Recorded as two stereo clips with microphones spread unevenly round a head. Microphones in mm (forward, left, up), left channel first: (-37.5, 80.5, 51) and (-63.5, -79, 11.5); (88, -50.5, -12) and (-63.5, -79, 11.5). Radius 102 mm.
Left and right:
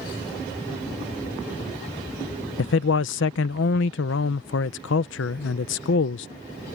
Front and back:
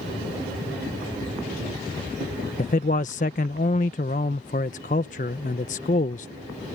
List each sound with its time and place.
2.6 s a man speaking: 60° left